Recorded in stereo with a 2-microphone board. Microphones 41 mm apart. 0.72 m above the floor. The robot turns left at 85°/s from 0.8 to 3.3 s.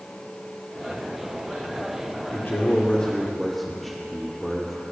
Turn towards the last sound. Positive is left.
turn(degrees=5)